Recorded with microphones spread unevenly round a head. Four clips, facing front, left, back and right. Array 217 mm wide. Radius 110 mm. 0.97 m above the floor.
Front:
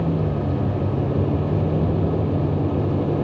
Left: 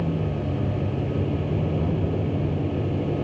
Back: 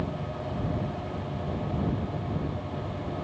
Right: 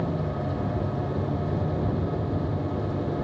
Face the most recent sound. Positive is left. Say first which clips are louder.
# left 2 dB, front 10 dB
turn(degrees=15)